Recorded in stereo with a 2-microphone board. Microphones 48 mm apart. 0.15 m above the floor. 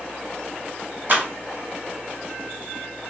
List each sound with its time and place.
1.1 s a clap: 45° right (ahead or behind), 1.9 m